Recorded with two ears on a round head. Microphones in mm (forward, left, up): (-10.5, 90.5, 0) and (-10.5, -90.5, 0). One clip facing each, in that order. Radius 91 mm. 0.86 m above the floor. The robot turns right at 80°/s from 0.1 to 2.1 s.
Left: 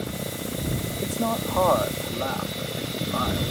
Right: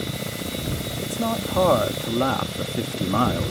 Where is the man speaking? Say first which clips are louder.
Right 1 dB; 160° left; by 3.5 s 110° right.